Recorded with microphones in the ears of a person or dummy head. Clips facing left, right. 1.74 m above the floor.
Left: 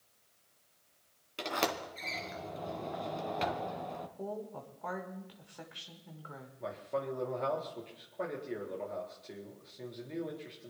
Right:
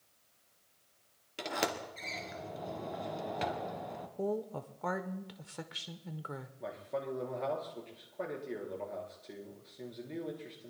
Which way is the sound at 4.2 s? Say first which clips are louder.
Right 9 dB; 50° right (ahead or behind).